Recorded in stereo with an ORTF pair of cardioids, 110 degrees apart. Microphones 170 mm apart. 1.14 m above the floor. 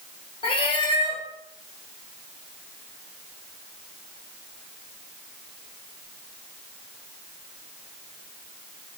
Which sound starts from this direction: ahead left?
A cat meowing, at 0.4 s.